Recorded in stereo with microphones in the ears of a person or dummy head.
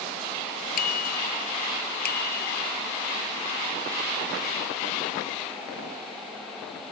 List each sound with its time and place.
0.8 s a bicycle bell: 45° left (ahead or behind); by 2.6 s 50° left (ahead or behind)